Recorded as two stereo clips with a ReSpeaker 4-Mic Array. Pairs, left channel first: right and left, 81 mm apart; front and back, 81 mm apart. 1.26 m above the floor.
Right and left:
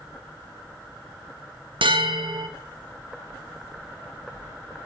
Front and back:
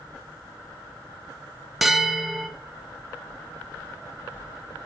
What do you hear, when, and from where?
1.8 s a bell: 95° left, 0.9 m